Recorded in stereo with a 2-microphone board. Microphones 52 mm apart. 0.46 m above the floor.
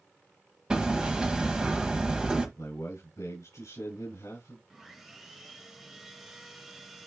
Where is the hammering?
15° right (ahead or behind), 1.3 m.